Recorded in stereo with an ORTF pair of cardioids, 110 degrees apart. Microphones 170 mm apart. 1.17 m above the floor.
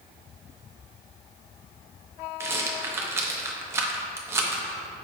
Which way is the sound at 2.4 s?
15° right.